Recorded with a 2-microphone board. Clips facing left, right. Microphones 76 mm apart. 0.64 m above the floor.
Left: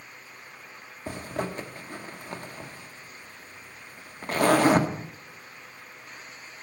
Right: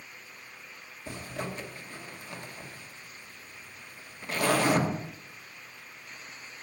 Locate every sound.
1.1 s a zipper: 45° left (ahead or behind), 1.2 m